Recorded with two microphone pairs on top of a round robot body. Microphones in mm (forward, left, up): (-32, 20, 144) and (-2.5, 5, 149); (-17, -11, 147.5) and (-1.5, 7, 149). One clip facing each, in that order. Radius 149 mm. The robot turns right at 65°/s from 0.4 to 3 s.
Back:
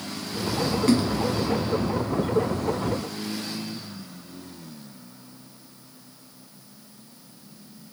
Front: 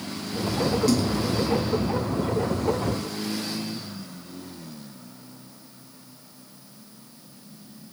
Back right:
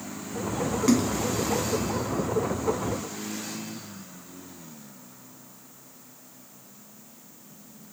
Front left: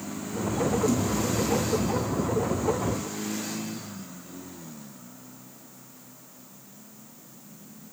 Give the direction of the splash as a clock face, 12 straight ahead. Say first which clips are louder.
Back 2 dB, back right 3 dB; 5 o'clock.